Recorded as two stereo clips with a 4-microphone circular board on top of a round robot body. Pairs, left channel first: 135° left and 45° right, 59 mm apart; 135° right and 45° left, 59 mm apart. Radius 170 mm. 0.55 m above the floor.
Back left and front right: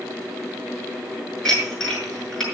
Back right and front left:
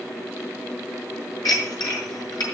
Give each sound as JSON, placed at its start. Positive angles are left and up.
{"t": 1.4, "sound": "dishes clattering", "azimuth_deg": -140, "distance_m": 6.5}